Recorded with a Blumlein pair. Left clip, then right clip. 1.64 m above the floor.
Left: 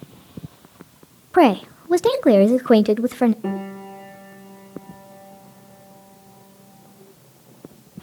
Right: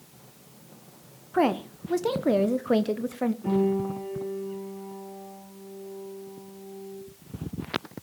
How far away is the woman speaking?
About 0.5 m.